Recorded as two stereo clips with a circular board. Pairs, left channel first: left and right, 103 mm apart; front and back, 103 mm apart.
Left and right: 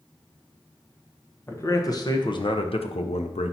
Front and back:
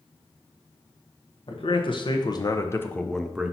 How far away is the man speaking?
About 1.2 m.